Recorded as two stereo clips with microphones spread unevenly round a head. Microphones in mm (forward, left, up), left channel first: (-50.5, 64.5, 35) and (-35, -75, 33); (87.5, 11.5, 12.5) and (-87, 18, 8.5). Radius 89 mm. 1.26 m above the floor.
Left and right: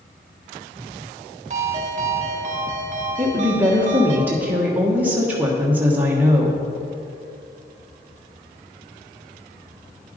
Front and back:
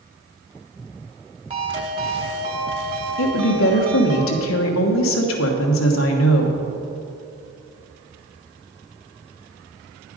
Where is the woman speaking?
5° right, 1.2 m.